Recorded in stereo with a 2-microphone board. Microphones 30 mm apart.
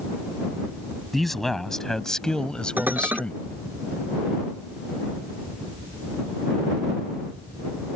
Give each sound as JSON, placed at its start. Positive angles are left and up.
{"t": 1.1, "sound": "a man speaking", "side_deg": 5}
{"t": 2.8, "sound": "dishes clattering", "side_deg": -75}